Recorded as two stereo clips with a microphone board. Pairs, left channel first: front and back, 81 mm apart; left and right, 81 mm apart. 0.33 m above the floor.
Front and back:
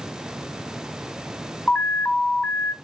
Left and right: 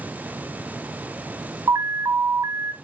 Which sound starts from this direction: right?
An alarm, at 1.7 s.